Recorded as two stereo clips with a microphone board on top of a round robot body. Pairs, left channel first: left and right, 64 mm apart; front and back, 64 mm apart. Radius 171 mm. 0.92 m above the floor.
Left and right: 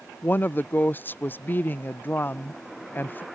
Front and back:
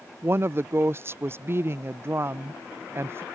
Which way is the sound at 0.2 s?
140° left.